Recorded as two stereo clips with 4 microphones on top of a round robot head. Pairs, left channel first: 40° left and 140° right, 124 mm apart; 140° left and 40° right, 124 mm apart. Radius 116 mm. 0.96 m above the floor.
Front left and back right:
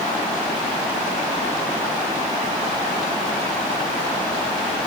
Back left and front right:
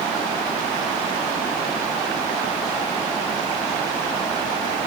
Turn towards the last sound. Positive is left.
No sound to turn to.